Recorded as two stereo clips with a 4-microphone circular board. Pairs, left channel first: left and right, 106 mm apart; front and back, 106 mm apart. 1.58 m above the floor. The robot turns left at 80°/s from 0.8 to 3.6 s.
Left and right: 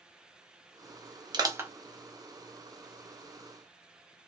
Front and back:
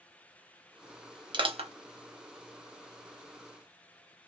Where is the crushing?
135° right, 0.7 m; by 1.7 s 165° right, 0.7 m.